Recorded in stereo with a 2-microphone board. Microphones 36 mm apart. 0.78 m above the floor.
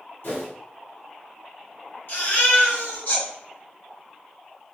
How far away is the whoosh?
About 1.5 m.